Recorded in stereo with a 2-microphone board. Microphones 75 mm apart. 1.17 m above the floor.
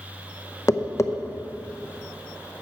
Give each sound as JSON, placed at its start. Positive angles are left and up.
{"t": 0.7, "sound": "tapping", "side_deg": 40, "distance_m": 0.7}